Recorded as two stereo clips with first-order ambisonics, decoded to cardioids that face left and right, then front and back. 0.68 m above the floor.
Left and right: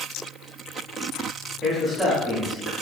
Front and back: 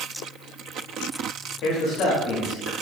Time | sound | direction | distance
1.6 | a man speaking | 5° right | 0.6 m